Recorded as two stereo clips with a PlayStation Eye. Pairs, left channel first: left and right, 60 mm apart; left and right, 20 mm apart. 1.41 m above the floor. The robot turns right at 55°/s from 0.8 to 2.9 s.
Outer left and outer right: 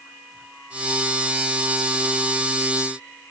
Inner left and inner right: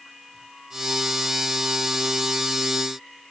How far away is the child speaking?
No child speaking in this recording.